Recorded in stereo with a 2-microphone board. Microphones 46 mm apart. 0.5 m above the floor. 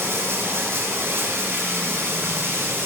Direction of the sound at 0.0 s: 70° right (ahead or behind).